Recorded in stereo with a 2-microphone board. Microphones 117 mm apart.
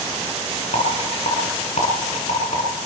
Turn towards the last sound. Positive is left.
turn(degrees=65)  # may be behind; listen again after turning